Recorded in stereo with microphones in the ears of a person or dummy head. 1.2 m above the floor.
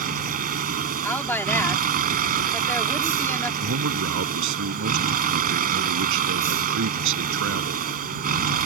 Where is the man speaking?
70° right (ahead or behind).